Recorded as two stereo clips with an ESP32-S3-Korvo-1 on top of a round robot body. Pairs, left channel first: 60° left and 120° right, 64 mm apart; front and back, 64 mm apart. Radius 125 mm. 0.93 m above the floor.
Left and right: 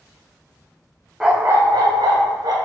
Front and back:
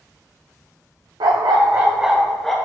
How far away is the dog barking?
About 0.7 m.